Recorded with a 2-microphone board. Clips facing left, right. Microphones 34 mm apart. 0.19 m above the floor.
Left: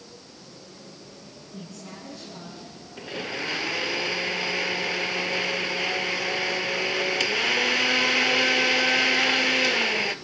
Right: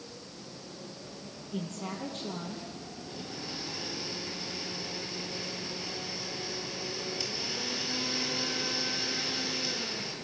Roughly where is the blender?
Left.